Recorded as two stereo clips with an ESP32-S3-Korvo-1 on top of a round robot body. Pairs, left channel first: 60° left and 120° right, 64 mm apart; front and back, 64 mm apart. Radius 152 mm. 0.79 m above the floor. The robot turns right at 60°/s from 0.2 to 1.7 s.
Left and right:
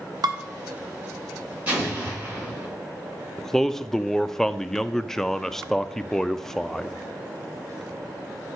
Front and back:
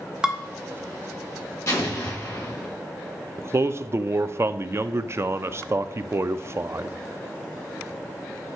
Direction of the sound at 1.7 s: 55° right.